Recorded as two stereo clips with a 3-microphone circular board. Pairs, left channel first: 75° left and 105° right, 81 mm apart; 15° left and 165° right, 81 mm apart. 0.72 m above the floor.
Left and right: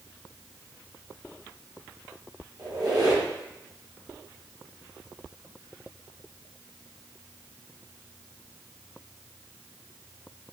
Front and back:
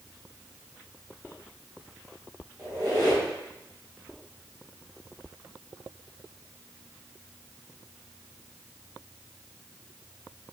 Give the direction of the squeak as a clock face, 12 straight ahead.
4 o'clock.